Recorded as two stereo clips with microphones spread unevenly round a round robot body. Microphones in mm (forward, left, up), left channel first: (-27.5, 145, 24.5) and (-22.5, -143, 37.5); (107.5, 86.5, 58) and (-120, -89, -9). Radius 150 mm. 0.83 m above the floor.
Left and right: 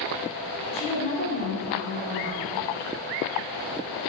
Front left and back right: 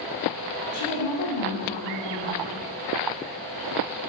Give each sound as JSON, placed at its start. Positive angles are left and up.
{"t": 0.7, "sound": "a woman speaking", "azimuth_deg": 20, "distance_m": 3.0}